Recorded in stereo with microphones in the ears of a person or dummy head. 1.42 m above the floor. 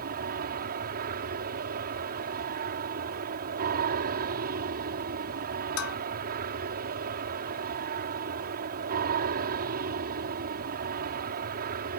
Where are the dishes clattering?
85° left.